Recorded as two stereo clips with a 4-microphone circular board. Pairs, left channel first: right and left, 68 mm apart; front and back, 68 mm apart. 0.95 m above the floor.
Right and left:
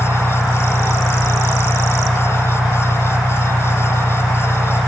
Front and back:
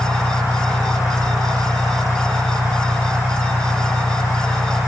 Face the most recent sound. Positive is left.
turn(degrees=-110)